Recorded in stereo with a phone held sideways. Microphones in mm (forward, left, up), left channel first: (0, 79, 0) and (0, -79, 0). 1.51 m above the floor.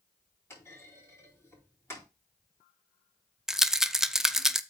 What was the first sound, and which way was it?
A clunk, 15° left (ahead or behind).